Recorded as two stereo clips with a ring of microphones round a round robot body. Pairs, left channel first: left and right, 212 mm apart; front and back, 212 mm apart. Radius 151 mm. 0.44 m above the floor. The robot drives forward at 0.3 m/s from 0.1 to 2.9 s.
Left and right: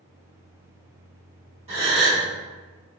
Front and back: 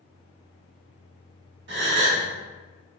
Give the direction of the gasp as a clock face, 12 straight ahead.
5 o'clock.